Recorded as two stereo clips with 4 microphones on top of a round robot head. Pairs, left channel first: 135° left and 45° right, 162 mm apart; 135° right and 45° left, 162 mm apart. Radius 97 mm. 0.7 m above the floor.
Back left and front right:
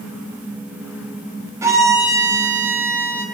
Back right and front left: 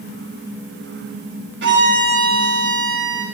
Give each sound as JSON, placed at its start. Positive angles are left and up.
{"t": 1.6, "sound": "a violin", "azimuth_deg": 30, "distance_m": 6.5}